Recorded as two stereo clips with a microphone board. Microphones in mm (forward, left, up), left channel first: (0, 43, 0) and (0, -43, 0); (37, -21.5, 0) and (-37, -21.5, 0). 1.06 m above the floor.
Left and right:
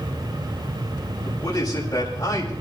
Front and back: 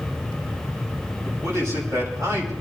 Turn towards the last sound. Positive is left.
turn(degrees=130)